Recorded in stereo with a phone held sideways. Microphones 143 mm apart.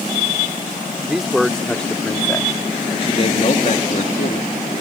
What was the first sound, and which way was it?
A man speaking, 5° right (ahead or behind).